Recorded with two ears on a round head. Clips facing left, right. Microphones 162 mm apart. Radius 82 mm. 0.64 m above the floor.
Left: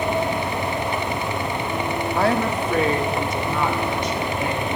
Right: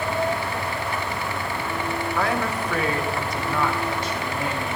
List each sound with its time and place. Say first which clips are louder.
2.2 s a woman speaking: left 5 dB; 30° left (ahead or behind), 1.1 m; by 4.8 s 15° left (ahead or behind), 2.5 m